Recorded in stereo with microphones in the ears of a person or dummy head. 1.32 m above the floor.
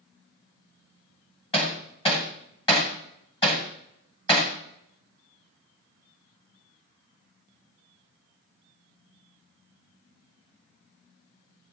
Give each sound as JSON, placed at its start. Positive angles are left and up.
{"t": 1.5, "sound": "hammering", "side_deg": 30, "distance_m": 1.3}